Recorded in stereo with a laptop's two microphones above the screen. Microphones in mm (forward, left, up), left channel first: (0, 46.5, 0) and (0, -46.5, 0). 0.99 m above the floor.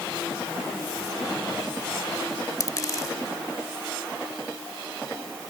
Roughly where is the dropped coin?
Left.